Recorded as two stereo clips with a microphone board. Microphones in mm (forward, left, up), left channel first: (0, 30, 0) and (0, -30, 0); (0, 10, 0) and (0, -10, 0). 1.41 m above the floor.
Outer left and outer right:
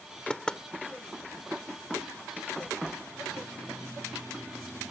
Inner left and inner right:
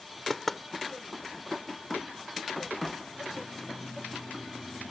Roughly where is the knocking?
Centre.